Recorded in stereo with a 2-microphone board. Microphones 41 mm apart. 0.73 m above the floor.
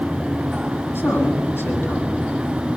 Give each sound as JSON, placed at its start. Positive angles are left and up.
{"t": 0.9, "sound": "a man speaking", "side_deg": 65, "distance_m": 8.0}